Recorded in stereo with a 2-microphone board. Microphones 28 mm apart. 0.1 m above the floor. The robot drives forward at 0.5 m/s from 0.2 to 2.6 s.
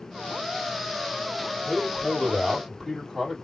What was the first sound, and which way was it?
A man speaking, 10° left (ahead or behind).